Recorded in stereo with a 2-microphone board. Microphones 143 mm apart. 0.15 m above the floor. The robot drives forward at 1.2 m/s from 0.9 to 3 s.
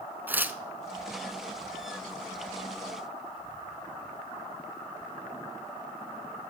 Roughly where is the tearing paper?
Centre.